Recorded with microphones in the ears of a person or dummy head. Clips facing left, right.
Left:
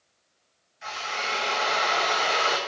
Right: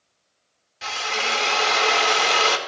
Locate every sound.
0.8 s a drill: 85° right, 2 m